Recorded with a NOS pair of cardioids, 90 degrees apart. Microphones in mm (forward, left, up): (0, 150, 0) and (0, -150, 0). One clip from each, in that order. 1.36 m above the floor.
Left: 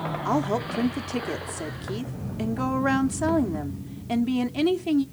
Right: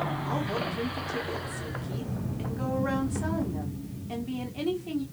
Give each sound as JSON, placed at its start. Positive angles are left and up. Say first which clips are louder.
{"t": 0.2, "sound": "a woman speaking", "louder": "left 5 dB", "azimuth_deg": 55, "distance_m": 1.0}